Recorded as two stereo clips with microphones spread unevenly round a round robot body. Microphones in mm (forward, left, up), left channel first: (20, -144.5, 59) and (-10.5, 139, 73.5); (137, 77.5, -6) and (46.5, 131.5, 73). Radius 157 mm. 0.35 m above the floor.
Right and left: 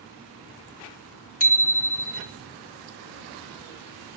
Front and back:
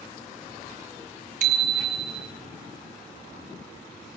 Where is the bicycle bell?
145° right, 3 m.